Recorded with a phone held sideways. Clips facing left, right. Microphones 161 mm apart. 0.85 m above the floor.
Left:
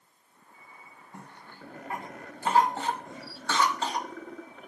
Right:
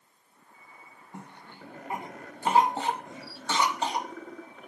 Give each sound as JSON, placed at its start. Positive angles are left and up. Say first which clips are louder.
{"t": 1.1, "sound": "a cough", "louder": "right 2 dB", "side_deg": -20, "distance_m": 0.6}